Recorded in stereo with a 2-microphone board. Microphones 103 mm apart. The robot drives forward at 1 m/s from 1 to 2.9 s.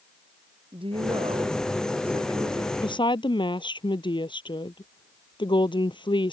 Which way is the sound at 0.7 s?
65° right (ahead or behind).